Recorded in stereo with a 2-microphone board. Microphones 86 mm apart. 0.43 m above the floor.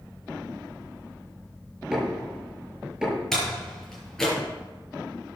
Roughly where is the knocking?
Centre.